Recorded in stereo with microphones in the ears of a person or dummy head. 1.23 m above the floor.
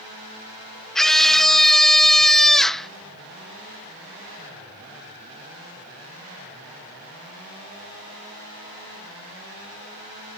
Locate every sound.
0.9 s a scream: 5° left (ahead or behind)